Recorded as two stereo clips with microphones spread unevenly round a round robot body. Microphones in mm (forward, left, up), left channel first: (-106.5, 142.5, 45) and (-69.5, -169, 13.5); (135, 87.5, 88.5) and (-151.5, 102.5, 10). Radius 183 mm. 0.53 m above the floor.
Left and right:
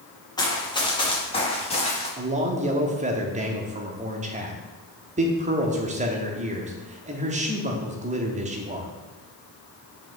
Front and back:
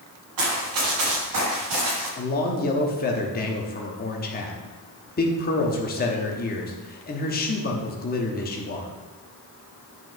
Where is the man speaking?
60° right, 1.1 m.